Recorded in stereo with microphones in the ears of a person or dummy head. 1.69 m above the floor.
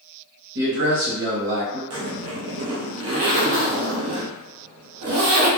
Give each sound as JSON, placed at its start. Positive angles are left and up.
{"t": 0.6, "sound": "a man speaking", "side_deg": -50, "distance_m": 1.0}
{"t": 1.9, "sound": "a zipper", "side_deg": -70, "distance_m": 0.7}